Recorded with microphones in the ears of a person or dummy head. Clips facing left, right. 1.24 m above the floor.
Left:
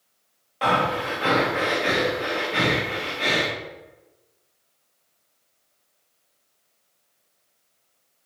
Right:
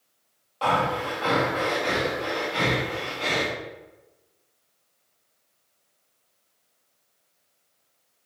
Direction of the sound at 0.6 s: 20° left (ahead or behind).